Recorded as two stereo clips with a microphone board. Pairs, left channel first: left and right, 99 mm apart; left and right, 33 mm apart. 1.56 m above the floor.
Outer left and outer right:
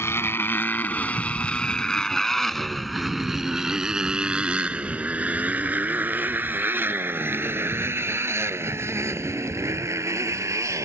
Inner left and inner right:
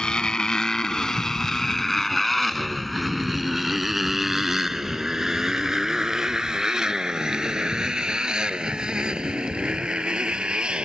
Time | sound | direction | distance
0.0 | a motorcycle | 25° left (ahead or behind) | ?